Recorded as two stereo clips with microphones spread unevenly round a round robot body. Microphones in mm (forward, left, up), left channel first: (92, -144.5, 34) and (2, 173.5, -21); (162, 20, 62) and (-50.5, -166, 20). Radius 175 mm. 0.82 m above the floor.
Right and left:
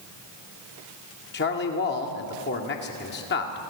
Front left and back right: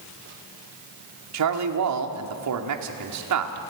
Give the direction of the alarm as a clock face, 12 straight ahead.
No alarm in this recording.